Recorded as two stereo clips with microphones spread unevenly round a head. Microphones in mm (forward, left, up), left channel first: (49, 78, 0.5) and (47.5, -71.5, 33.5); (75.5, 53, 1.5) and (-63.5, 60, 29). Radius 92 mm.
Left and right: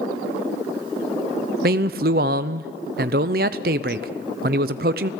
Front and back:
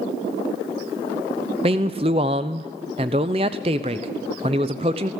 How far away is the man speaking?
About 0.8 m.